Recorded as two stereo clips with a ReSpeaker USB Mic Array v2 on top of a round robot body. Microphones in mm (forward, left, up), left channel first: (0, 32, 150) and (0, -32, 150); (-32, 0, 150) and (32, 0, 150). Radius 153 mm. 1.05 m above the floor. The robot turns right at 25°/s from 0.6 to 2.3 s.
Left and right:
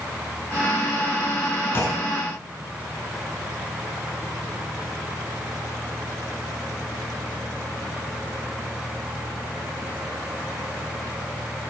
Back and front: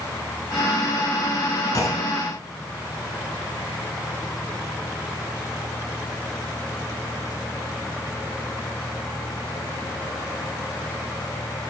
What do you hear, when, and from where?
1.7 s a clunk: 145° left, 4.5 m; by 2.3 s 160° left, 4.5 m